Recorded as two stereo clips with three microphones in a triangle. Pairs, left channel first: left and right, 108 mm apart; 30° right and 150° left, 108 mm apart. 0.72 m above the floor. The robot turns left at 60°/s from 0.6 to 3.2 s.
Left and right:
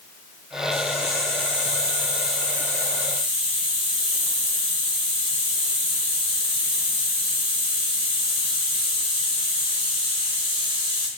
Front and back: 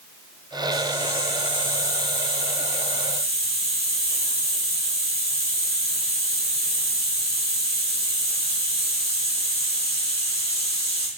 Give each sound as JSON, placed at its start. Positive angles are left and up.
{"t": 0.7, "sound": "a hiss", "azimuth_deg": -80, "distance_m": 3.5}